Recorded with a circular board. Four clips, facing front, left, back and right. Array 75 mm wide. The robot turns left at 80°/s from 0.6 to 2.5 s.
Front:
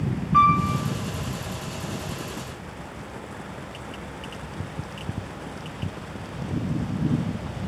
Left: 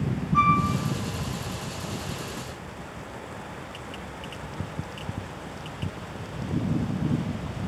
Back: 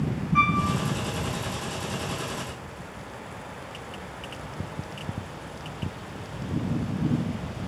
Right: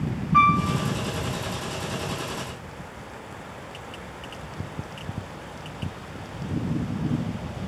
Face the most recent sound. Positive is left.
turn(degrees=180)